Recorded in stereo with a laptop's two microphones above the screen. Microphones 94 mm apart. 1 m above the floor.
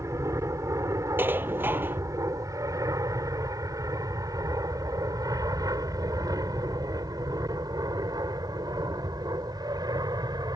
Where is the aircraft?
35° right (ahead or behind); by 10.6 s 45° right (ahead or behind).